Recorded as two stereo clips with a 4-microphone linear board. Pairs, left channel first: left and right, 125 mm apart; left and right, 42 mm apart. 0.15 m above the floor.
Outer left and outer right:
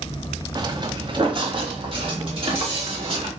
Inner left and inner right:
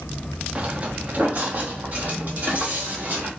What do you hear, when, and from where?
0.6 s footsteps: 35° right (ahead or behind), 0.6 m; by 3.3 s 45° right (ahead or behind), 2.5 m